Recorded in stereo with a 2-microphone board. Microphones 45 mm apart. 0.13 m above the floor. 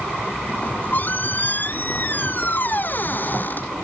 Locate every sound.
0.5 s a squeak: 45° left (ahead or behind)